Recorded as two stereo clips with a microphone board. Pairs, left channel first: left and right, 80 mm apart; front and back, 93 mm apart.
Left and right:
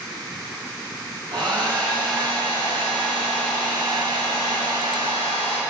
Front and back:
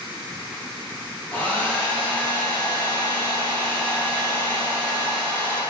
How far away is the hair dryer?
About 5 m.